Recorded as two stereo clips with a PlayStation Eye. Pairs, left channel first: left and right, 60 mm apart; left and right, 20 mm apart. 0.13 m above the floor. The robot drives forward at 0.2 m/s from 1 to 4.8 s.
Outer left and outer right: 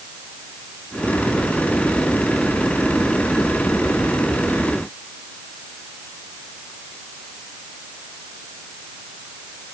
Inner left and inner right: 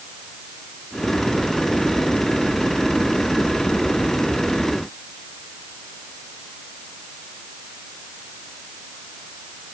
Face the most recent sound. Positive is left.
No sound to turn to.